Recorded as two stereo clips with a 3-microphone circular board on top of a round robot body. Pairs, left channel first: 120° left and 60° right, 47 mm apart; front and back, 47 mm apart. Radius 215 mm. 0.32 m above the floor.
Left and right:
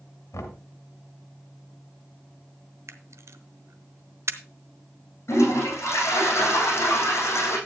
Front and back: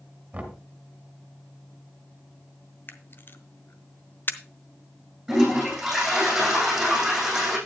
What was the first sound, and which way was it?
Knocking, 115° left.